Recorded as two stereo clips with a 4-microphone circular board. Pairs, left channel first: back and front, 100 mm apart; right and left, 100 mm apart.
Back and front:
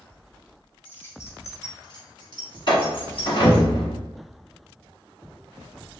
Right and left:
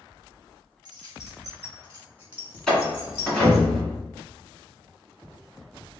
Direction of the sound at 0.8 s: 110° left.